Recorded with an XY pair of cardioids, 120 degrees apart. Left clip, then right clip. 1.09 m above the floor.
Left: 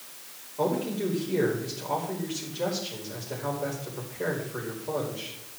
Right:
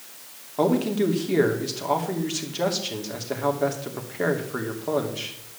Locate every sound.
0.6 s a man speaking: 70° right, 3 m